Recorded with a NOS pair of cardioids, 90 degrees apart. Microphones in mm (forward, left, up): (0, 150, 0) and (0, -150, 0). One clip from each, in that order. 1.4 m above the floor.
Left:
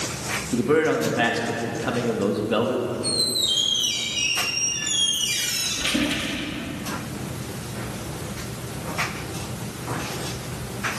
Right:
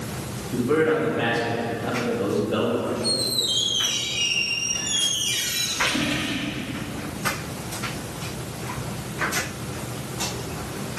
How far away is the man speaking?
About 2 m.